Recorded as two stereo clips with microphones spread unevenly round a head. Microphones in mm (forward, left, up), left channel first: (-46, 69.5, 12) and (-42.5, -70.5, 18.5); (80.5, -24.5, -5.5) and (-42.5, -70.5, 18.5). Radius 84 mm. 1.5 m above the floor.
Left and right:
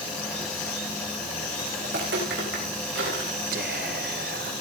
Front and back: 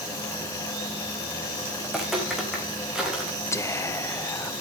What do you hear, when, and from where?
1.8 s footsteps: 75° right, 7.5 m
3.5 s whispering: 50° right, 0.7 m